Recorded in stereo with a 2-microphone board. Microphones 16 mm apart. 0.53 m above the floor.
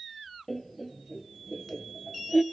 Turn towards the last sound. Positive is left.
turn(degrees=15)  # may be behind; listen again after turning